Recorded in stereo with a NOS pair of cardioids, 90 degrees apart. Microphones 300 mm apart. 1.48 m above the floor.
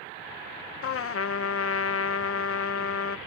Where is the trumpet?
50° left.